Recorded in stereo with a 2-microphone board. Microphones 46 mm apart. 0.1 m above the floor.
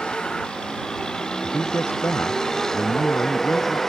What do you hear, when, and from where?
0.0 s a vehicle: 20° left (ahead or behind); by 3.9 s 10° left (ahead or behind)
1.4 s a man speaking: 65° left (ahead or behind)